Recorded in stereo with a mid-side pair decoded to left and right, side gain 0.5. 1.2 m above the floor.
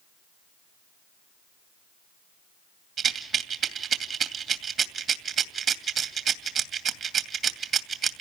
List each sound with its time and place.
3.0 s a rattle: 55° right, 2.5 m